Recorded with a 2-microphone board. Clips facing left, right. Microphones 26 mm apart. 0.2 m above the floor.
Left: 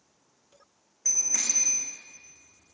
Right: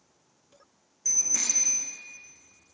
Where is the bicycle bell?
30° left (ahead or behind), 9.5 m.